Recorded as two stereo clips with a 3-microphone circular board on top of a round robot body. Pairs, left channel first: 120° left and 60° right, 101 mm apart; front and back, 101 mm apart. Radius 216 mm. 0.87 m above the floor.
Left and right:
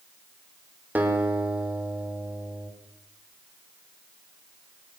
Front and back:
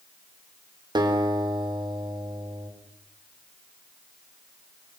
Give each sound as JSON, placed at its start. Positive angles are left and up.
{"t": 0.9, "sound": "a guitar", "azimuth_deg": -135, "distance_m": 4.0}